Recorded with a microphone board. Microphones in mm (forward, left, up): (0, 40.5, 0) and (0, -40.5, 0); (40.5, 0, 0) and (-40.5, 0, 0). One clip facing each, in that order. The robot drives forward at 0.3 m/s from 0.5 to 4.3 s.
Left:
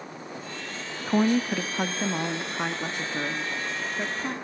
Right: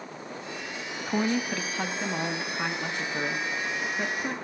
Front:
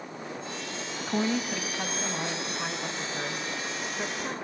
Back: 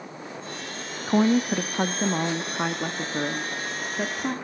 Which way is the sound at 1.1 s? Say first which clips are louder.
Left 4 dB, back 8 dB; 150° left.